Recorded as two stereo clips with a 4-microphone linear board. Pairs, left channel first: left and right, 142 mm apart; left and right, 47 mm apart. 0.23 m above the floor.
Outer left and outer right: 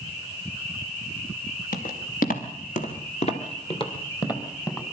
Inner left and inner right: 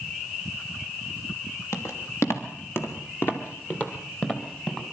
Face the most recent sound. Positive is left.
turn(degrees=20)  # may be behind; listen again after turning